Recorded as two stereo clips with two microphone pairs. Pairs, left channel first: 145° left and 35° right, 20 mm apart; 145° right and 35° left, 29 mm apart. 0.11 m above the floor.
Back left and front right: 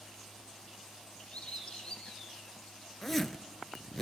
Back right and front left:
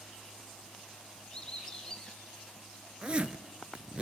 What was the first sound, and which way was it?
A bird, 155° left.